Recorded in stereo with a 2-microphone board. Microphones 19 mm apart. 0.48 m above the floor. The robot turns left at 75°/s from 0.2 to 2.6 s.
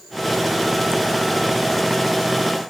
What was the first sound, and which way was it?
Only background noise.